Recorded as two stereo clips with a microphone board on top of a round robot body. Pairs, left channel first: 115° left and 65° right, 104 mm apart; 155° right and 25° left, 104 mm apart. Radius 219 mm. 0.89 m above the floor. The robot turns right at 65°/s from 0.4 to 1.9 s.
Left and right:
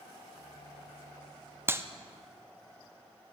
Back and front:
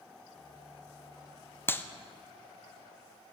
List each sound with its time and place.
1.7 s a clap: 115° right, 0.6 m; by 1.9 s 100° right, 0.6 m